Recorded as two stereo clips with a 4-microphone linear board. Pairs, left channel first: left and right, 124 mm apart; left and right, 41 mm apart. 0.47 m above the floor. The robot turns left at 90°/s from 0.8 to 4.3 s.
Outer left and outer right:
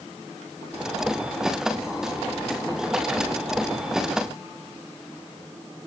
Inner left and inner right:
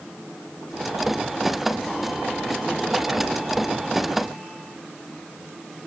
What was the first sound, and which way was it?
Only background noise.